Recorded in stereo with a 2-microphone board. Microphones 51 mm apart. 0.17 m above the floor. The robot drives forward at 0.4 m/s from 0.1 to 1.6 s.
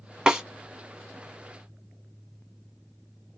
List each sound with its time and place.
0.3 s a snare drum: 15° right (ahead or behind), 0.7 m